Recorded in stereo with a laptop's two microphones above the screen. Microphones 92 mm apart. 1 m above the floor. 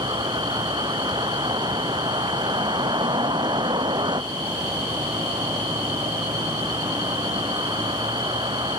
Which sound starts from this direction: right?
A vehicle, at 0.0 s.